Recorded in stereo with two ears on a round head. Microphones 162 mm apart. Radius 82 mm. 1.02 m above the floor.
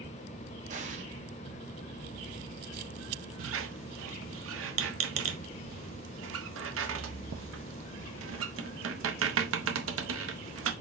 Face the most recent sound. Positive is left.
turn(degrees=-85)